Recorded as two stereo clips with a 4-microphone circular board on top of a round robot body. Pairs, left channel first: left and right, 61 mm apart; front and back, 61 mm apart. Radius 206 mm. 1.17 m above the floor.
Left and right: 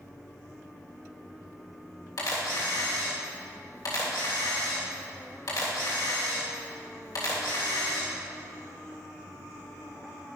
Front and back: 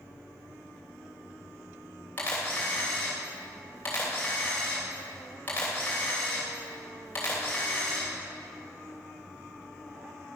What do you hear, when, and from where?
2.2 s a camera shutter: 60° left, 3 m